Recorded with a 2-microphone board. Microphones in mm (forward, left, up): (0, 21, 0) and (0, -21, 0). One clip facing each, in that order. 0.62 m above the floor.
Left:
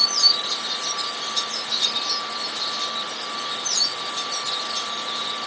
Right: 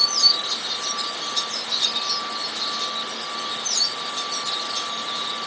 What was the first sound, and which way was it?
Only background noise.